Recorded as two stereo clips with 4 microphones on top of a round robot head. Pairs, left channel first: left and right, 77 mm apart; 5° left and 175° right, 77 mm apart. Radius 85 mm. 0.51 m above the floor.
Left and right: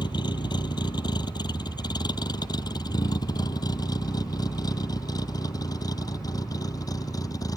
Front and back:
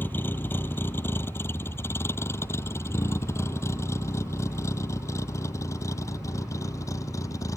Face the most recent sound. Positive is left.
turn(degrees=50)